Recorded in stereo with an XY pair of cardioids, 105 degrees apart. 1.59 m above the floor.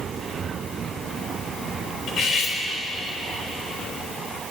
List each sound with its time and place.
2.1 s cutlery clinking: 65° left, 4 m